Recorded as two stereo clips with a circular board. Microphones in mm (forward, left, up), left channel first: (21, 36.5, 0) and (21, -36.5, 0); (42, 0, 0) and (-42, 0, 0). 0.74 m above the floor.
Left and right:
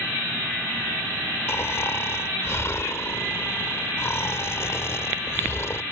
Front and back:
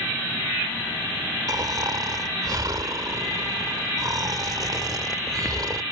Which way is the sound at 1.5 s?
140° left.